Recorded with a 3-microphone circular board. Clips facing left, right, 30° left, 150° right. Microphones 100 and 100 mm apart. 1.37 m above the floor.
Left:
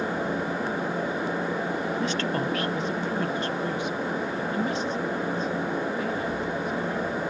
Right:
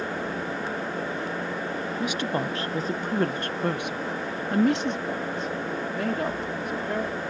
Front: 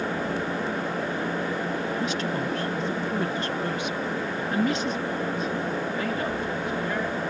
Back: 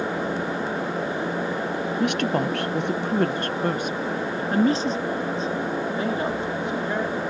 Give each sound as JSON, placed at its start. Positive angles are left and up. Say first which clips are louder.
{"t": 2.0, "sound": "a woman speaking", "louder": "even, back 5 dB", "azimuth_deg": -170}